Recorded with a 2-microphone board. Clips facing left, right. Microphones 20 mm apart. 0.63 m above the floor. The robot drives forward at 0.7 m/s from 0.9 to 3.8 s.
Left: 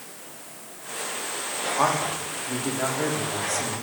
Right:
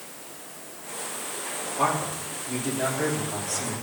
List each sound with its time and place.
1.8 s a man speaking: 35° left (ahead or behind), 1.3 m; by 3.7 s 25° left (ahead or behind), 1.9 m